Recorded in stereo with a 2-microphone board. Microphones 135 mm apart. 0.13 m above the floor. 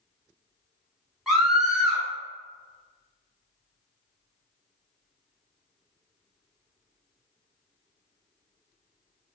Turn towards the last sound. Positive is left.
turn(degrees=-5)  # may be behind; listen again after turning